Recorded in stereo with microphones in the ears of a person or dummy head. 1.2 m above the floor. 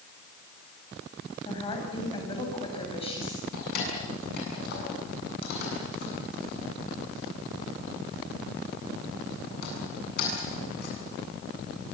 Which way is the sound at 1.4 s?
25° left (ahead or behind).